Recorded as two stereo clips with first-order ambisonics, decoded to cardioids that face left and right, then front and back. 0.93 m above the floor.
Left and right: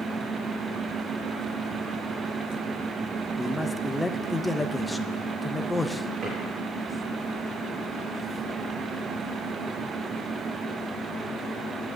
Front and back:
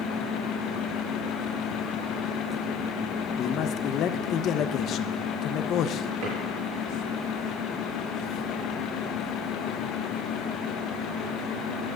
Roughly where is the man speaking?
Ahead.